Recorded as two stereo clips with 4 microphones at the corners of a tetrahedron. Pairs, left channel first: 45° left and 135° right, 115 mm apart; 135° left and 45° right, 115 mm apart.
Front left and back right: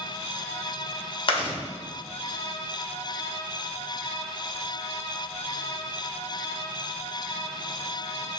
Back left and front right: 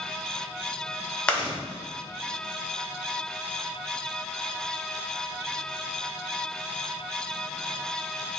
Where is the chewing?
55° left, 0.8 m.